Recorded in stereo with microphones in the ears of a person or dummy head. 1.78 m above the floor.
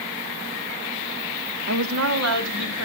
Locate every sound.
1.7 s a woman speaking: 70° right (ahead or behind), 0.8 m; by 2.8 s 80° right, 2 m